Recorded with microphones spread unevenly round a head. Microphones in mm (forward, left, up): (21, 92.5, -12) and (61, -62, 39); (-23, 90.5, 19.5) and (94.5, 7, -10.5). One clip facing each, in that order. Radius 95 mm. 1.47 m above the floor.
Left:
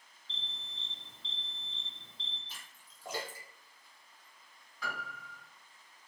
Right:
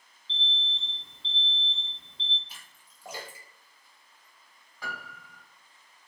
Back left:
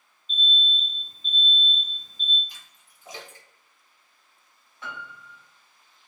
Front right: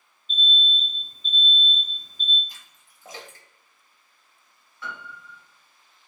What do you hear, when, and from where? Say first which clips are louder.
0.3 s an alarm: right 11 dB, front right 2 dB; straight ahead, 0.8 m
2.5 s a splash: even, even; 40° right, 0.9 m
4.8 s a piano: right 1 dB, front right 1 dB; 140° right, 0.9 m